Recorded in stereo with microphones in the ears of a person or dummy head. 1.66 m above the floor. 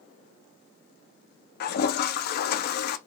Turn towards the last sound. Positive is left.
turn(degrees=50)  # may be behind; listen again after turning